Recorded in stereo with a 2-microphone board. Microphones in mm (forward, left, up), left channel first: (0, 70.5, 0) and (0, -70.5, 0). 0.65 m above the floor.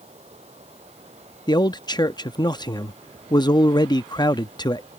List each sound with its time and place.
0.0 s running water: 50° right (ahead or behind)
1.5 s a man speaking: 30° left (ahead or behind)